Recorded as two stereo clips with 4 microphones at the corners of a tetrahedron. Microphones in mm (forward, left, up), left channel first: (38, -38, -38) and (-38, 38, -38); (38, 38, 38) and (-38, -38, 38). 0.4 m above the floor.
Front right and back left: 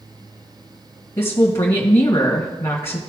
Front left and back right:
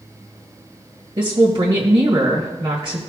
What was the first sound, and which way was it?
A woman speaking, 100° right.